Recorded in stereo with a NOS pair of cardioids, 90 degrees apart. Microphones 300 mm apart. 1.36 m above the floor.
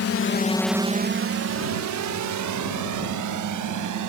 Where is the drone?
55° left; by 4.1 s 80° right.